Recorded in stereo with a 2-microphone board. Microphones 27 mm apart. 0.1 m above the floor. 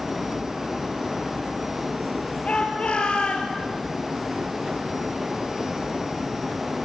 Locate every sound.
2.5 s a shout: 45° left (ahead or behind), 3 m; by 3.5 s 40° left (ahead or behind), 2.5 m